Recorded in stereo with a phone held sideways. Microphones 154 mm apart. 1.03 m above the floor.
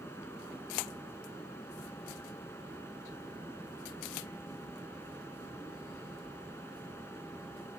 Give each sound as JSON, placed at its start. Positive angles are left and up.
{"t": 0.0, "sound": "a fan", "side_deg": 15}